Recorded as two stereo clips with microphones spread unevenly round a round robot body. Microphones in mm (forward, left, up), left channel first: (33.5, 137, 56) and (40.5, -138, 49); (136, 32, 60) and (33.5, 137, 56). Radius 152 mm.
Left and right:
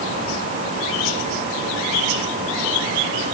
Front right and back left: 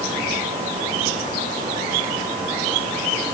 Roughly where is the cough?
No cough in this recording.